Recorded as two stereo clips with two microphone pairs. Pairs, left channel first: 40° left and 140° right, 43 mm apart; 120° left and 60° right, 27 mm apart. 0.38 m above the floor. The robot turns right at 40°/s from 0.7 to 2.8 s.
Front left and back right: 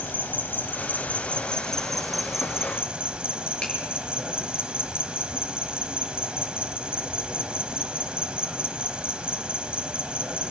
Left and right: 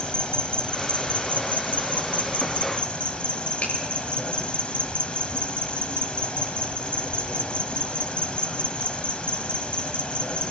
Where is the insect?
75° left, 0.9 m; by 10.5 s 160° left, 0.9 m.